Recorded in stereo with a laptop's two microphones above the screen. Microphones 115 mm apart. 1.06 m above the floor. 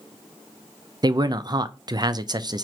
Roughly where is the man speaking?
Right.